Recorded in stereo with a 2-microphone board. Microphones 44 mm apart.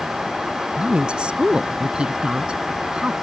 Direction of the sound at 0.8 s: 25° right (ahead or behind).